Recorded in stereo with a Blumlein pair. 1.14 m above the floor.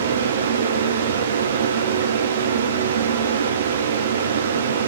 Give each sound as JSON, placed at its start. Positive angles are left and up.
{"t": 0.0, "sound": "a fan", "azimuth_deg": -65, "distance_m": 0.9}